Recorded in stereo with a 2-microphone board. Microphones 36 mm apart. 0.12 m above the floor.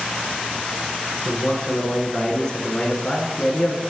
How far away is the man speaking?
About 1.5 m.